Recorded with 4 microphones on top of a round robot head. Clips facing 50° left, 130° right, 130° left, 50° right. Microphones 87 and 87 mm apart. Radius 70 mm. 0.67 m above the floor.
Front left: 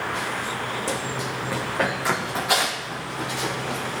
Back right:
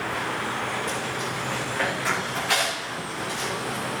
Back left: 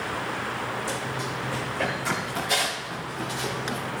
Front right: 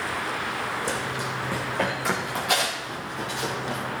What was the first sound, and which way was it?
Running footsteps, 5° right.